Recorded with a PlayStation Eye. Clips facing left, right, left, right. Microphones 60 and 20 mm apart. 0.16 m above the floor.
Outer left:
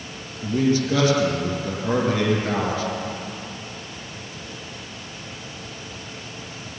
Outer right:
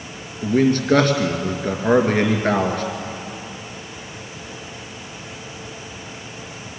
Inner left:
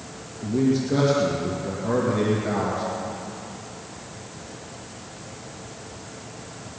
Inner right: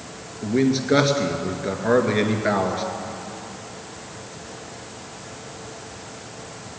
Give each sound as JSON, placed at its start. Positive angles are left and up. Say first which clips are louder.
{"t": 0.4, "sound": "a man speaking", "louder": "outer right 4 dB, inner right 2 dB", "side_deg": -55, "distance_m": 2.0}